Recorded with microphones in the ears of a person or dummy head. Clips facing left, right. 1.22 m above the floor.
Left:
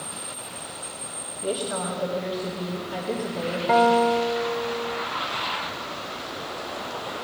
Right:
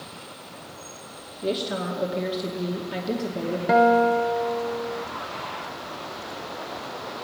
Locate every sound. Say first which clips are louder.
1.4 s a woman speaking: right 1 dB; 30° right (ahead or behind), 2 m
3.7 s a guitar: right 1 dB; 10° right (ahead or behind), 0.7 m